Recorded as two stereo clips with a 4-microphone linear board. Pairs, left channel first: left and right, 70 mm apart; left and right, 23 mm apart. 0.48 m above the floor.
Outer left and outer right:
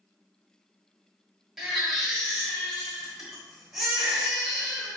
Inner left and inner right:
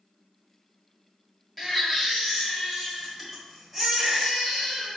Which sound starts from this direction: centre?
A baby crying, at 1.6 s.